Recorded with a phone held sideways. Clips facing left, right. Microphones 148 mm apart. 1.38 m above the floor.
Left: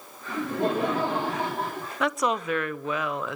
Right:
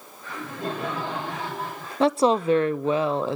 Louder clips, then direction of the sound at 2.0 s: Right 7 dB; 30° right (ahead or behind).